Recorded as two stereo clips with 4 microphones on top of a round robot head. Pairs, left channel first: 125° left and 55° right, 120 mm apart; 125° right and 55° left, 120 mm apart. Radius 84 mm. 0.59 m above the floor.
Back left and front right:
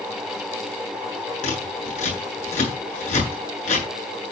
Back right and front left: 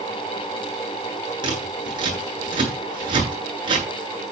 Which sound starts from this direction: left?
Scissors, at 1.4 s.